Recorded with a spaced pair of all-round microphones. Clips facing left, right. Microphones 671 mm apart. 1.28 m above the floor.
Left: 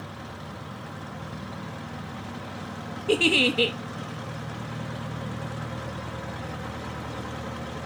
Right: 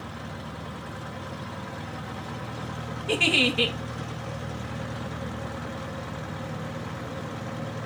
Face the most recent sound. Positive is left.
turn(degrees=-20)  # may be behind; listen again after turning